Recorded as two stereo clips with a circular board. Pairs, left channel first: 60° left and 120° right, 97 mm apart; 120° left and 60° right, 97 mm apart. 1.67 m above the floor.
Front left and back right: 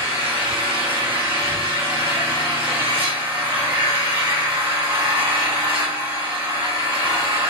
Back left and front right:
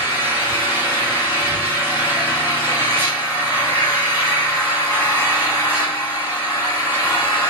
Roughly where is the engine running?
Behind right.